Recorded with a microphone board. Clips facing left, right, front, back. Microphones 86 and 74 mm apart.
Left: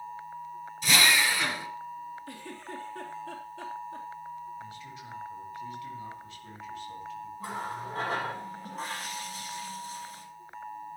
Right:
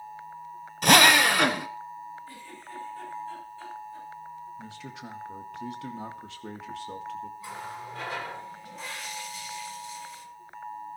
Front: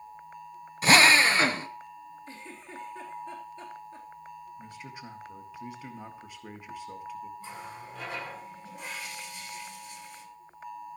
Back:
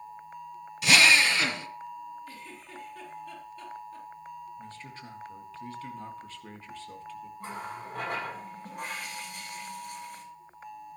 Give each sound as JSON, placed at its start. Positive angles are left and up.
{"t": 0.8, "sound": "a drill", "azimuth_deg": -55, "distance_m": 1.0}
{"t": 2.3, "sound": "a giggle", "azimuth_deg": 65, "distance_m": 3.5}
{"t": 4.6, "sound": "a man speaking", "azimuth_deg": -75, "distance_m": 2.0}
{"t": 7.4, "sound": "a running tap", "azimuth_deg": 135, "distance_m": 8.0}